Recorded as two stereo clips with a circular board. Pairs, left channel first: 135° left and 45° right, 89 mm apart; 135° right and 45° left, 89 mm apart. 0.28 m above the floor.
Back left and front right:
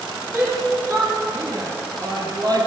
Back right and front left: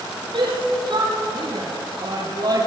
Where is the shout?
15° left, 8.5 m; by 2.7 s straight ahead, 6 m.